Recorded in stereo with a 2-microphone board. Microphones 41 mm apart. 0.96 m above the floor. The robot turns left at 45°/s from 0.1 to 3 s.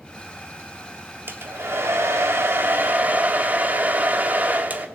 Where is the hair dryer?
60° right, 1.4 m; by 4.9 s 140° right, 1.4 m.